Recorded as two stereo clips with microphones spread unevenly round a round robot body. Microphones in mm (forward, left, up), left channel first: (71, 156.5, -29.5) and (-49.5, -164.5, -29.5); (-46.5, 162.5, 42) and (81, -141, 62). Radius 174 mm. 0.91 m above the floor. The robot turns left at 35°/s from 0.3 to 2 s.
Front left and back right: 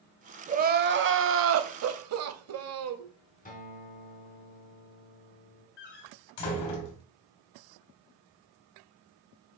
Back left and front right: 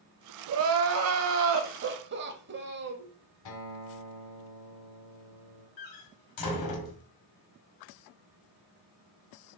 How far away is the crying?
About 0.9 m.